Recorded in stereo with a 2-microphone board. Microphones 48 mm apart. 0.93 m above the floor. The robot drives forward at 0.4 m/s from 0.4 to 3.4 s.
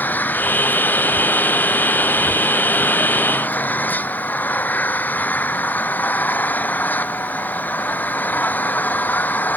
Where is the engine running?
40° left (ahead or behind).